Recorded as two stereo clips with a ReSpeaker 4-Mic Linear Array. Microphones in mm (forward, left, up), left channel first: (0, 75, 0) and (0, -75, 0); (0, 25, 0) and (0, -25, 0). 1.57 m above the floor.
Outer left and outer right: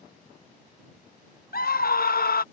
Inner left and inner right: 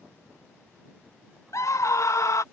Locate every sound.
1.5 s a scream: 80° left